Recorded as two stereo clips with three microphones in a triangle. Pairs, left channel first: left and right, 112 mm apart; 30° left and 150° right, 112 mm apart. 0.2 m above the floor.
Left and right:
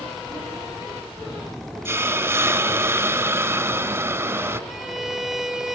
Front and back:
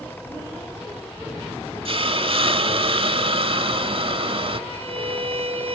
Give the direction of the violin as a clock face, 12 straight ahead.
6 o'clock.